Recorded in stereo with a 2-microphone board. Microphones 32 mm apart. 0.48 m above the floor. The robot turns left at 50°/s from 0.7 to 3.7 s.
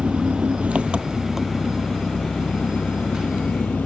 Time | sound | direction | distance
0.0 | an engine running | 140° right | ?